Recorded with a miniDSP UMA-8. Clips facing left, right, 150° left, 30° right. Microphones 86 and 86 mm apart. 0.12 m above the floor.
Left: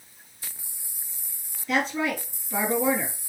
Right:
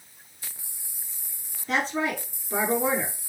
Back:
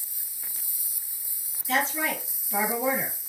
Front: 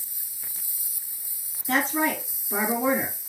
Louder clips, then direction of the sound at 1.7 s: Left 1 dB, front 3 dB; 45° right.